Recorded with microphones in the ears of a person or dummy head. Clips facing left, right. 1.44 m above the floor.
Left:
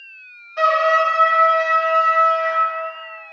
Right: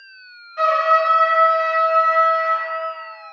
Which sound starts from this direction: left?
A trumpet, at 0.6 s.